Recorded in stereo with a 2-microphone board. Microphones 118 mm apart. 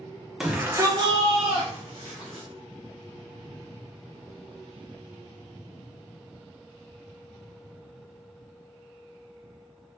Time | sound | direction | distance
0.4 | a shout | 5° right (ahead or behind) | 0.8 m